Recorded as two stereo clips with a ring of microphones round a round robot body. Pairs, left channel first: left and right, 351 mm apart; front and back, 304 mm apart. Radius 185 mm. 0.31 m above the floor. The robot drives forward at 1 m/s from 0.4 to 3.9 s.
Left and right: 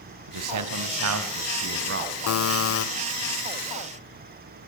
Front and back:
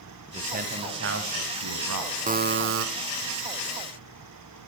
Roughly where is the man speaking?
Behind right.